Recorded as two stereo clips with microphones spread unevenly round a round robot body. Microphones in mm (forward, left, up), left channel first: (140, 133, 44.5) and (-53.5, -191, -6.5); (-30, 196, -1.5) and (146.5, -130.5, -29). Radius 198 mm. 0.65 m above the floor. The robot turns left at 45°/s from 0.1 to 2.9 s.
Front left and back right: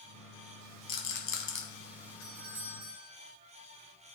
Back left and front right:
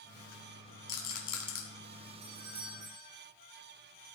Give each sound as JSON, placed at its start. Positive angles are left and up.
{"t": 0.9, "sound": "a rattle", "azimuth_deg": 90, "distance_m": 3.5}
{"t": 2.2, "sound": "a doorbell", "azimuth_deg": -60, "distance_m": 4.0}